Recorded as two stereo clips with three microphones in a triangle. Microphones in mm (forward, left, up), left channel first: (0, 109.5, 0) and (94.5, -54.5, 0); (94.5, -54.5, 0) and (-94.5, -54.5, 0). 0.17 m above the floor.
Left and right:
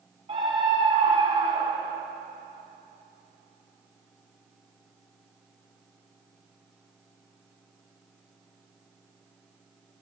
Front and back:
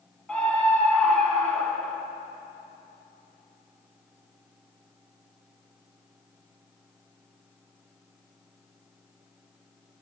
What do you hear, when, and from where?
0.3 s a scream: 80° right, 1.8 m